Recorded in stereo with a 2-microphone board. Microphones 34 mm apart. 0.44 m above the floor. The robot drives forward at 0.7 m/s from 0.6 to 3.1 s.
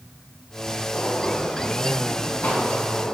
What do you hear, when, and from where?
0.9 s a gunshot: 80° left, 2.5 m; by 3.1 s 60° left (ahead or behind), 3 m